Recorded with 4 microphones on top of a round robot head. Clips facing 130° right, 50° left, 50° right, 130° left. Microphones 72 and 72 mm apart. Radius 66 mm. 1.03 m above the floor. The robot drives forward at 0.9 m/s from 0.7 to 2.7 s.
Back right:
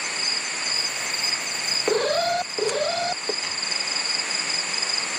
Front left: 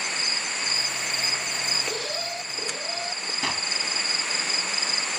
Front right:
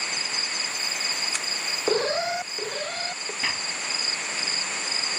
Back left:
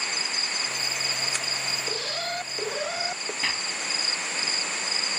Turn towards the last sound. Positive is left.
turn(degrees=40)